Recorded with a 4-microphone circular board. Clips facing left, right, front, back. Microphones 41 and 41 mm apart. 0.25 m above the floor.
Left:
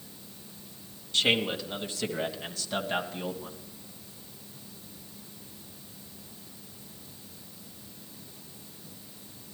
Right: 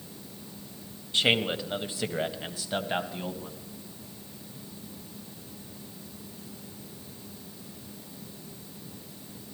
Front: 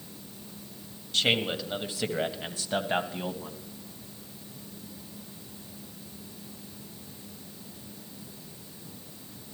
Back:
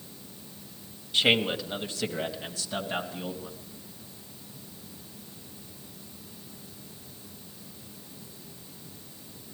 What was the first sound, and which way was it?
A man speaking, 125° right.